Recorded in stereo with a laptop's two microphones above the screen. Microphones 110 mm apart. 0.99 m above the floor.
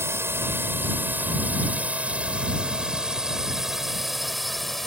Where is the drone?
20° right (ahead or behind); by 4.9 s centre (ahead or behind).